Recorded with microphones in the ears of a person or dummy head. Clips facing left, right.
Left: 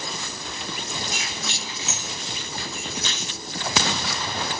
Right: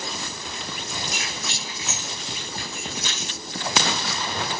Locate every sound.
1.1 s keys jangling: 75° left (ahead or behind), 4.5 m; by 3.3 s 60° left (ahead or behind), 3.5 m